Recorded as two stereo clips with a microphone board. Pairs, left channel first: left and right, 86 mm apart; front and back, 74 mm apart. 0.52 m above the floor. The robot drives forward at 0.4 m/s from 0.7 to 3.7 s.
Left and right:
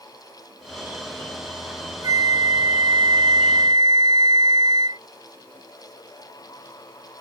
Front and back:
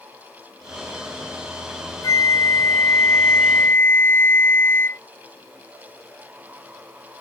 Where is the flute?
45° right; by 5.0 s 60° right.